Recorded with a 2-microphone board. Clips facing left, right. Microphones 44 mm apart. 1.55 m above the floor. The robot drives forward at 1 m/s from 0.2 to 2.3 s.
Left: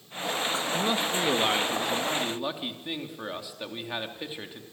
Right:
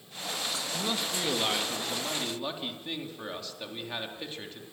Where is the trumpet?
I don't hear a trumpet.